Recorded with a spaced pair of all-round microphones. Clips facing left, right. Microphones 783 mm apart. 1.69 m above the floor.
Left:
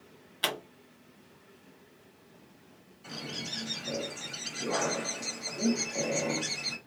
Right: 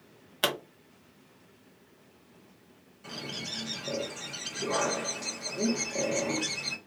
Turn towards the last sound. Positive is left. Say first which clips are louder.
# even
turn(degrees=-50)  # may be behind; listen again after turning